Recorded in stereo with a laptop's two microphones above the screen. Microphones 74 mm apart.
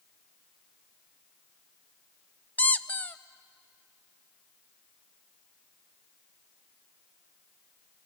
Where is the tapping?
I don't hear tapping.